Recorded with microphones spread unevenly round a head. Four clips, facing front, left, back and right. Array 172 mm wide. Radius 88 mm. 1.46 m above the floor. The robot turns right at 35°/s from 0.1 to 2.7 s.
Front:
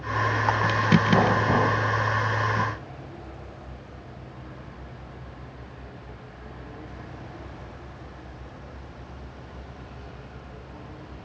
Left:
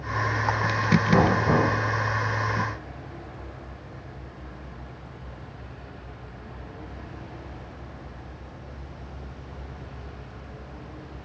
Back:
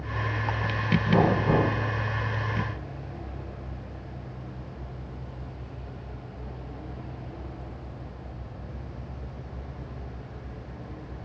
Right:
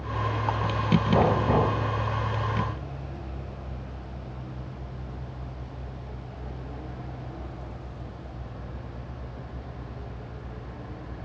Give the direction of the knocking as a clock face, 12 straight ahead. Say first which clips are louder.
Left 1 dB, front 1 dB; 8 o'clock.